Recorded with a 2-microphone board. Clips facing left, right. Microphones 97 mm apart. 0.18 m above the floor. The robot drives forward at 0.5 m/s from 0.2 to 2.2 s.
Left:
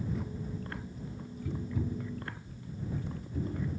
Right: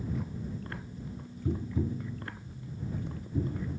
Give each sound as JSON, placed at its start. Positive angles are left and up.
{"t": 1.4, "sound": "tapping", "side_deg": -30, "distance_m": 0.6}